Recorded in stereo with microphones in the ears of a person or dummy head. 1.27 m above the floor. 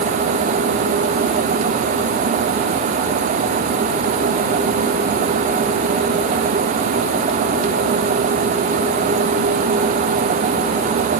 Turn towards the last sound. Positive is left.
No sound to turn to.